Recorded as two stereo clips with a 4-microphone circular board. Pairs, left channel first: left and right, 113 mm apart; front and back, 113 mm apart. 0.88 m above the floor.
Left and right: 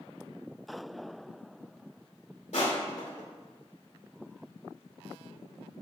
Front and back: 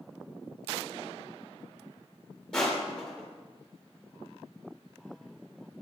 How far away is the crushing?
About 1.8 m.